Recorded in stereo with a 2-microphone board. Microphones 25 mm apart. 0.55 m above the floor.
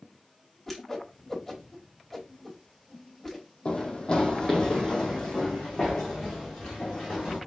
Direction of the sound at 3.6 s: 45° left (ahead or behind).